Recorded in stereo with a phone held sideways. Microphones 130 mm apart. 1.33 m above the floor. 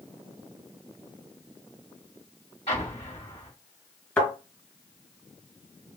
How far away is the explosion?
About 2.5 m.